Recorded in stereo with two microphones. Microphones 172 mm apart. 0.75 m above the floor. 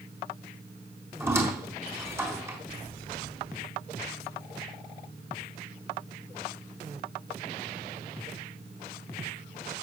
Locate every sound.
1.2 s a squeak: 15° right (ahead or behind), 4 m